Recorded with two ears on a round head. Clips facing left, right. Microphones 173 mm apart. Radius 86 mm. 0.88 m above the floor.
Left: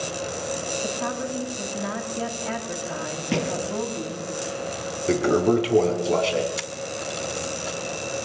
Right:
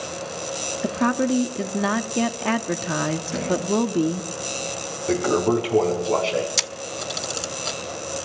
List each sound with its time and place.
0.8 s a woman speaking: 75° right (ahead or behind), 1.4 m
3.3 s a thud: 85° left, 6.5 m
5.1 s a toilet flushing: 20° left (ahead or behind), 3.5 m
6.6 s a camera shutter: 55° right (ahead or behind), 1.0 m